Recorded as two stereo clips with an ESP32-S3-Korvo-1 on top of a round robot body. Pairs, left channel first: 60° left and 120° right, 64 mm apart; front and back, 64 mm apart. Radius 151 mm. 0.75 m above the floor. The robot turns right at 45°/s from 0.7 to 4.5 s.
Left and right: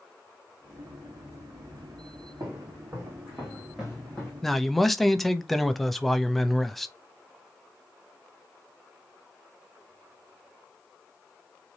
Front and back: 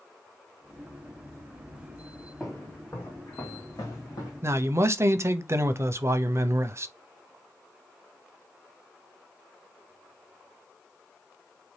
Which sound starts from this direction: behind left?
A man speaking, at 4.4 s.